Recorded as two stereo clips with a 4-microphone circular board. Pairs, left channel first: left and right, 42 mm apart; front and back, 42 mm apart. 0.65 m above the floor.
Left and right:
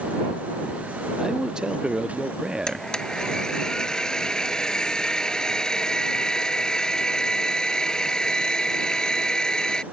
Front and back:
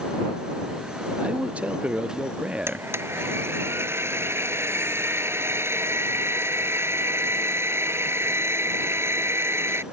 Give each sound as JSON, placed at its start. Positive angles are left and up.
{"t": 1.2, "sound": "a man speaking", "azimuth_deg": -150}
{"t": 2.7, "sound": "a blender", "azimuth_deg": 160}